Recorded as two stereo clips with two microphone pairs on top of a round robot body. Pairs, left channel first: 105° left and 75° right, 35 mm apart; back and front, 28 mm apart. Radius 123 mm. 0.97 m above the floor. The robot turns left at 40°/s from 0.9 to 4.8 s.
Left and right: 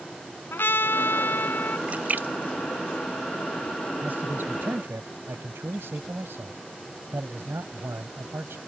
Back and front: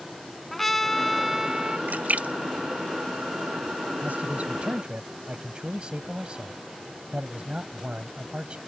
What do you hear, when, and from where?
0.5 s a trumpet: 95° left; by 1.8 s 60° left
1.9 s a splash: 20° right; by 3.6 s 90° right
4.0 s a man speaking: 25° right; by 8.6 s 55° right